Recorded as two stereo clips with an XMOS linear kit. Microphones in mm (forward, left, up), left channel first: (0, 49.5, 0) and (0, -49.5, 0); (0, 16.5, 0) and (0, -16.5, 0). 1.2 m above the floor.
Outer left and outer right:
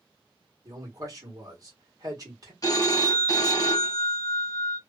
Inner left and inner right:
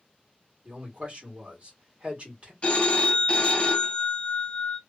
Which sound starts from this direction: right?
A man speaking, at 0.7 s.